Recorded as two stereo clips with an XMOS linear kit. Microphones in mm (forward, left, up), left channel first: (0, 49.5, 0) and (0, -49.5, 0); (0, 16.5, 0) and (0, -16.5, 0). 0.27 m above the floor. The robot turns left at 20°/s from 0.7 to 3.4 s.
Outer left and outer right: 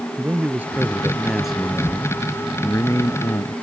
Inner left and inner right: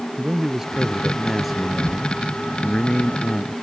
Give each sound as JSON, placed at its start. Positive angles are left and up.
{"t": 0.2, "sound": "a man speaking", "azimuth_deg": -165}